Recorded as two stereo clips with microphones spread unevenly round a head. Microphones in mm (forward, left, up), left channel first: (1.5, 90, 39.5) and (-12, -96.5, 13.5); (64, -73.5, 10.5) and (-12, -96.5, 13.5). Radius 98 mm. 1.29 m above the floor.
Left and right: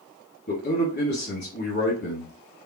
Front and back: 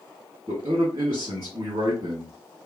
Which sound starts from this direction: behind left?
A man speaking, at 0.5 s.